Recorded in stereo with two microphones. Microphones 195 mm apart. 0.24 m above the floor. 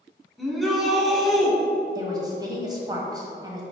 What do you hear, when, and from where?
0.4 s a shout: centre (ahead or behind), 1.9 m
1.9 s a woman speaking: 20° right (ahead or behind), 1.4 m